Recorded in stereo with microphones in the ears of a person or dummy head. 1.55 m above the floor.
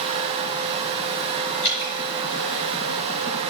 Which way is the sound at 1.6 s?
65° left (ahead or behind).